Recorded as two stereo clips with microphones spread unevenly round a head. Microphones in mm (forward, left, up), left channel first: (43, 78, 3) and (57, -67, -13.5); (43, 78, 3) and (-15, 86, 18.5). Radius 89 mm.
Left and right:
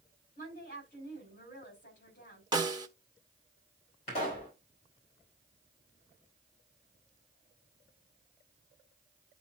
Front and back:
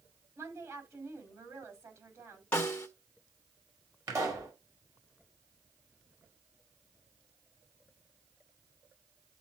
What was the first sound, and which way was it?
A woman speaking, 145° left.